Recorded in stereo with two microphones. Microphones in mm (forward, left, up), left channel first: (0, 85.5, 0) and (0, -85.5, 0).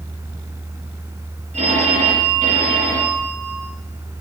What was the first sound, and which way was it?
A phone ringing, 40° right (ahead or behind).